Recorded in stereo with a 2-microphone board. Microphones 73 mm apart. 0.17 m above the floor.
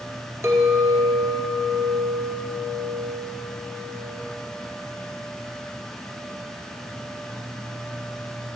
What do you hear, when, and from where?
0.4 s a clink: 45° right (ahead or behind), 2 m